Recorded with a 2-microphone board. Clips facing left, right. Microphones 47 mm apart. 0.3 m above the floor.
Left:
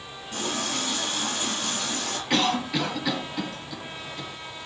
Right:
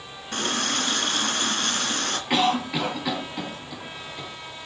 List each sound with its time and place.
0.3 s a running tap: 60° right (ahead or behind), 2.5 m
2.3 s a cough: 15° right (ahead or behind), 3.5 m